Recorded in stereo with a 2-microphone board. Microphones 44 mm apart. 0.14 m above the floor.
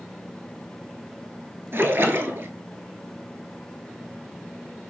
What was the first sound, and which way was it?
A splash, 65° right (ahead or behind).